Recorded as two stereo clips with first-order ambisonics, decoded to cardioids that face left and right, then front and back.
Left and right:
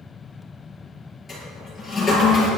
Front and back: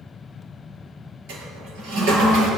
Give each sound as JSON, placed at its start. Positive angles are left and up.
{"t": 1.3, "sound": "a toilet flushing", "azimuth_deg": 165, "distance_m": 7.0}